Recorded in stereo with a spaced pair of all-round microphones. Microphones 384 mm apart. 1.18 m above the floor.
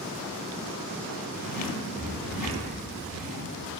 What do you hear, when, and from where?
1.3 s a zipper: 50° right (ahead or behind), 4 m